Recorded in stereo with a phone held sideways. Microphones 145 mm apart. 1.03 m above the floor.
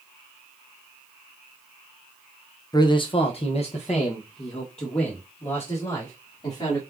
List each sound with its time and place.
2.7 s a man speaking: 25° left (ahead or behind), 0.6 m; by 6.8 s 40° left (ahead or behind), 2.5 m